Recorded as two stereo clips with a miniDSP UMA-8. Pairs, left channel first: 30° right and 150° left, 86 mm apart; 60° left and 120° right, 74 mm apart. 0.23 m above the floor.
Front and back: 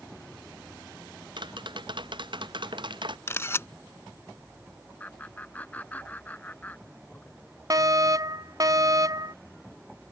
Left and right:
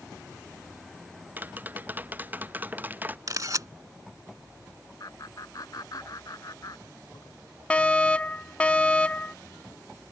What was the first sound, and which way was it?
Tapping, 175° left.